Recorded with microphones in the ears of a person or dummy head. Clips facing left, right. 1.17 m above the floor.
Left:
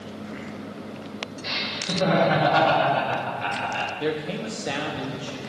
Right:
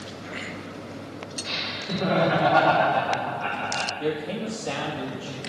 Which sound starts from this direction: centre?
A man speaking, at 4.0 s.